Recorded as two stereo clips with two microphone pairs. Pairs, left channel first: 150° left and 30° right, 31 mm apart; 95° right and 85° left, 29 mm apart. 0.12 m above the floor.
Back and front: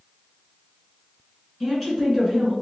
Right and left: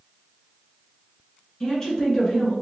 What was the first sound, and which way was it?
A woman speaking, 135° right.